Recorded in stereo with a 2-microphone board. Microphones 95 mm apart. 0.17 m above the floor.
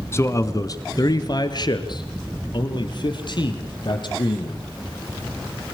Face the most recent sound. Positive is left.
turn(degrees=55)  # may be behind; listen again after turning